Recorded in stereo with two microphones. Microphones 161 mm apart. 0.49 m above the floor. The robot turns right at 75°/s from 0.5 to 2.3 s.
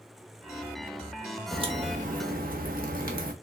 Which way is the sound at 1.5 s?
150° right.